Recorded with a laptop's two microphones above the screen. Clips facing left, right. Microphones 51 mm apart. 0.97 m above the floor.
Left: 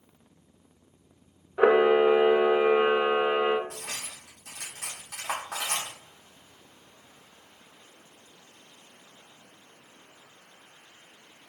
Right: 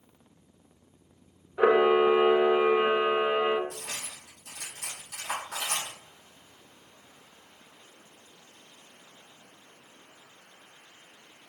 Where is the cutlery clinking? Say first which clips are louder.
Left 1 dB; 75° left (ahead or behind), 1.1 m.